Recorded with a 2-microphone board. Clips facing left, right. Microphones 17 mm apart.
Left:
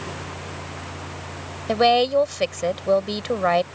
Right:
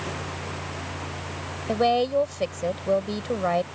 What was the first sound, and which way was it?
A woman speaking, 35° left (ahead or behind).